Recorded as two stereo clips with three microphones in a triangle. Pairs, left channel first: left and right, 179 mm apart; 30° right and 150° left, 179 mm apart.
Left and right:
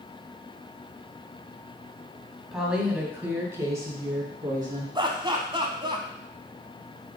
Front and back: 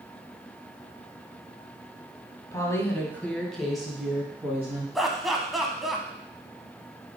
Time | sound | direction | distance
2.5 | a woman speaking | 5° right | 1.5 m
5.0 | laughter | 120° right | 1.1 m